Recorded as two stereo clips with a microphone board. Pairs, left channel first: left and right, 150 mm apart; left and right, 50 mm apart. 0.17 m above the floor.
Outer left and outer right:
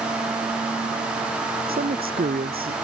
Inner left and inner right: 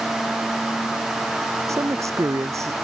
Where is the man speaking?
80° right; by 2.7 s 85° right.